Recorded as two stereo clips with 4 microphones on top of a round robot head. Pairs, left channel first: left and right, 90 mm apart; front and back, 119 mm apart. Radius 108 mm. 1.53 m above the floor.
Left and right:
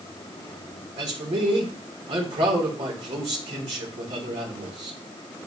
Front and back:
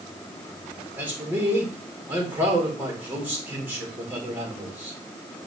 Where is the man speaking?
105° right, 2.5 m.